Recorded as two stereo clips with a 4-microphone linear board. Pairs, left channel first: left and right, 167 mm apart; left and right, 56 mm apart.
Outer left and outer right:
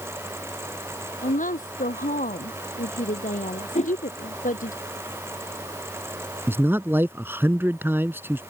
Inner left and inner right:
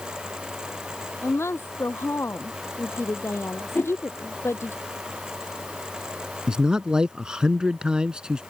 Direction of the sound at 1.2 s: 50° left (ahead or behind).